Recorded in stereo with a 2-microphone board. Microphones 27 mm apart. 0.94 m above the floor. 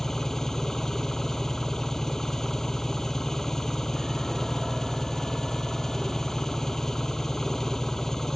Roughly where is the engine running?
Centre.